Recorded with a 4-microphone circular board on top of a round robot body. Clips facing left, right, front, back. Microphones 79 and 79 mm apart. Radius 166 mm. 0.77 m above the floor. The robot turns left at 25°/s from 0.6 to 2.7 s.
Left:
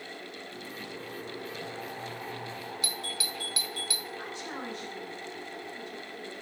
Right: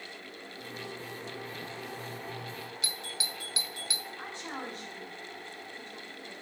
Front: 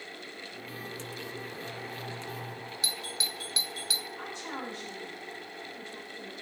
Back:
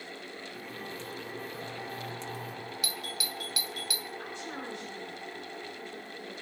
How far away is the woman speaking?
About 8.5 m.